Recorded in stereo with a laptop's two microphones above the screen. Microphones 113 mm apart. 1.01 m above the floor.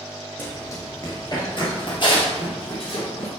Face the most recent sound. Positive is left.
turn(degrees=60)  # may be behind; listen again after turning